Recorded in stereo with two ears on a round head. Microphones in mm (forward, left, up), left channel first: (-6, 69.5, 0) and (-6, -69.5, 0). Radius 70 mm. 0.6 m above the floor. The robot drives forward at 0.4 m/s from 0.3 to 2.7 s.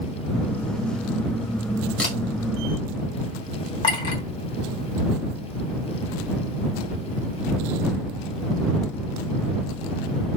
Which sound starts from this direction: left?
A clink, at 3.8 s.